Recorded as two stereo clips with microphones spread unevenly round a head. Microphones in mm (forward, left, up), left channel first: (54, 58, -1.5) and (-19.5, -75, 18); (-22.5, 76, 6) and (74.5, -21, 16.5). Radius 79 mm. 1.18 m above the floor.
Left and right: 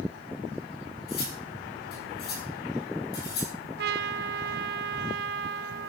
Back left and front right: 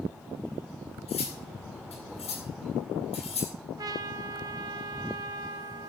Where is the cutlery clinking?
95° left, 9.5 m.